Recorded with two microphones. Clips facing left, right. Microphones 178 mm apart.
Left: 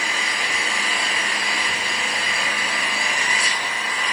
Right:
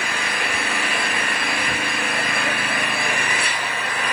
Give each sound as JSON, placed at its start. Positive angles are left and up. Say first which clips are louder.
{"t": 0.0, "sound": "an engine running", "louder": "right 3 dB", "side_deg": -60, "distance_m": 1.4}